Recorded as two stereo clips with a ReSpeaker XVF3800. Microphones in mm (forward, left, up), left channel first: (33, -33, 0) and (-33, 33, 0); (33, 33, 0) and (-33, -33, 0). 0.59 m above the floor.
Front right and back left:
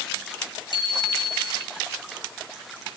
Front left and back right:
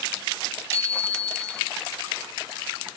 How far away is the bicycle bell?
About 7.5 m.